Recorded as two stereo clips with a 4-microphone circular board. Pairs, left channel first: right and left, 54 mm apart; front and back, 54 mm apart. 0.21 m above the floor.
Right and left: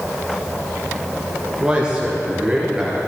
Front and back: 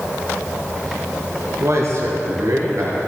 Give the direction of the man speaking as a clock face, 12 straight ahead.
7 o'clock.